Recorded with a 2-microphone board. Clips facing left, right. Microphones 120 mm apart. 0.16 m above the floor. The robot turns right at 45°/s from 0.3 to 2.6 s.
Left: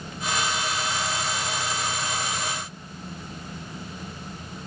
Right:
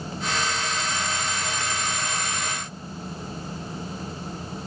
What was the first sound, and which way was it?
Only background noise.